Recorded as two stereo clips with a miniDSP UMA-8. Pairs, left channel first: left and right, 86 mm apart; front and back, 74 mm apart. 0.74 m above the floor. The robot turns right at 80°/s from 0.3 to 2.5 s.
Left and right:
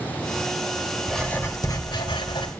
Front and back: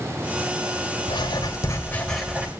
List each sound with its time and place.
1.1 s writing: straight ahead, 2.5 m; by 2.5 s 110° left, 2.5 m